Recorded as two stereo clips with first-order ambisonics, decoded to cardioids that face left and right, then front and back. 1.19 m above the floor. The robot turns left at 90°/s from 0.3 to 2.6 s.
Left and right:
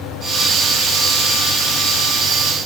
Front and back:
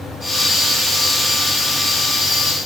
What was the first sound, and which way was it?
Only background noise.